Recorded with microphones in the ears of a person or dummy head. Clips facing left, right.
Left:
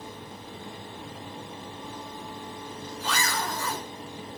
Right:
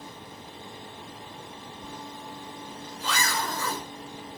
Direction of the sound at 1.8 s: 60° right (ahead or behind).